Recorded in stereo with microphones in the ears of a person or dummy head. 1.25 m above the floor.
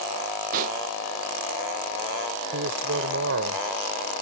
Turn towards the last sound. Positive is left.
turn(degrees=-60)  # may be behind; listen again after turning